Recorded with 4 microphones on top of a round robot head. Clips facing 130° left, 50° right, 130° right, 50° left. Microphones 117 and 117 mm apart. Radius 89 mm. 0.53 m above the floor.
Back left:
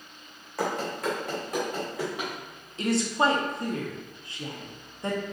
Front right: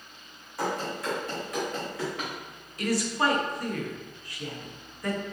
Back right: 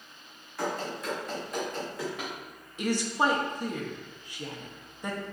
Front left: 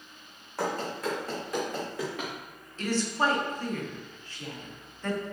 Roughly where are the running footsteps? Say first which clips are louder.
Back left 1 dB, front left 2 dB; left.